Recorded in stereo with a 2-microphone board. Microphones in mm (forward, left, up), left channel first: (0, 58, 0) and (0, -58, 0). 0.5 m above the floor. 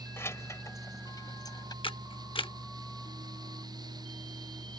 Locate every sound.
0.2 s keys jangling: 20° left (ahead or behind); by 1.7 s 35° left (ahead or behind)
1.8 s a camera shutter: 50° left (ahead or behind)